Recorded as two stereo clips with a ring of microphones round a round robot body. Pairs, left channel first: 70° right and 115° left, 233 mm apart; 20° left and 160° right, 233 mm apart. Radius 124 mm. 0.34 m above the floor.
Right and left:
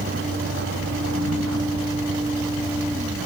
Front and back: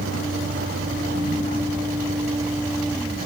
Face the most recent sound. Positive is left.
turn(degrees=135)